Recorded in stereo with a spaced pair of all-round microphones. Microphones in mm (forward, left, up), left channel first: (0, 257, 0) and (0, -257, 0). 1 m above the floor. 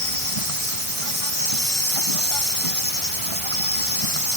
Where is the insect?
75° right (ahead or behind).